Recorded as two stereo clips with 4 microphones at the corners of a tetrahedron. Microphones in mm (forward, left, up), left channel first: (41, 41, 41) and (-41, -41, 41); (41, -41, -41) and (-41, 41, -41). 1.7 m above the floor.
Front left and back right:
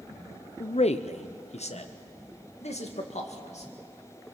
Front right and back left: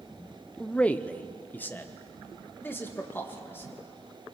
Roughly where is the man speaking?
Ahead left.